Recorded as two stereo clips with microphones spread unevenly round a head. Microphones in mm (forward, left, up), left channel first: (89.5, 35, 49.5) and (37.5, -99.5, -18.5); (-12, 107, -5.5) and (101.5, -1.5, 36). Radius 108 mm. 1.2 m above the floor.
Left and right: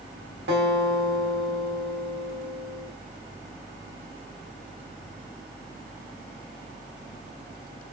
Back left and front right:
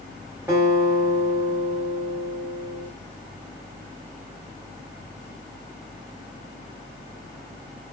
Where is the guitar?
120° right, 1.8 m.